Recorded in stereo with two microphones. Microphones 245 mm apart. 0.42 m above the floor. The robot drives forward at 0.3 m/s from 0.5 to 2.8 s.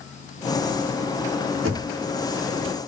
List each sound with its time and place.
1.6 s knocking: 55° right (ahead or behind), 1.7 m